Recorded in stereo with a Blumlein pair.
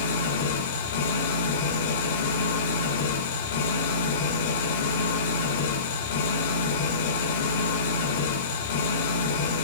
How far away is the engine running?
About 2.0 m.